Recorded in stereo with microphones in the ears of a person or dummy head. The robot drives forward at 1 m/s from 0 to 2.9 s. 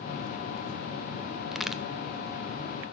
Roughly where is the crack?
Centre.